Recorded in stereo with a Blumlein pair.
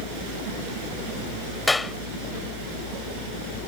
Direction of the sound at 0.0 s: 45° left.